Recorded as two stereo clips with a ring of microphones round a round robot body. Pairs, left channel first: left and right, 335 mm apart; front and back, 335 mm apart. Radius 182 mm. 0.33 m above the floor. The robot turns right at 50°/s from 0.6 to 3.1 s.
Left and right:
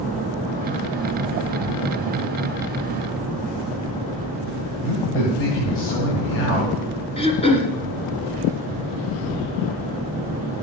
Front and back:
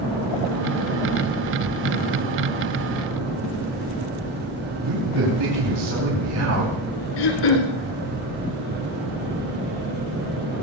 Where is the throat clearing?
15° left, 2.5 m.